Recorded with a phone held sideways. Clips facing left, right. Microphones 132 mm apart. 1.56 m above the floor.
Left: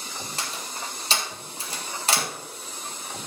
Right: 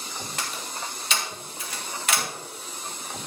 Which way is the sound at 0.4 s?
35° left (ahead or behind).